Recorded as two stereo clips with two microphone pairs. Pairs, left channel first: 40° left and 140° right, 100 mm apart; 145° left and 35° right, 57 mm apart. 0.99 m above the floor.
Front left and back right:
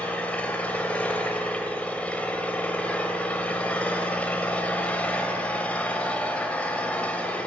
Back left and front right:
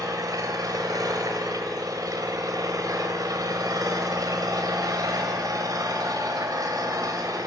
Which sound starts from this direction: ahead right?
An engine running, at 0.0 s.